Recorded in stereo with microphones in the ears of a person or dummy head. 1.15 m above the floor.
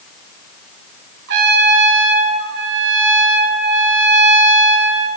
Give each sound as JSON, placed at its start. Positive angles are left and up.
{"t": 1.3, "sound": "a trumpet", "side_deg": -70, "distance_m": 3.5}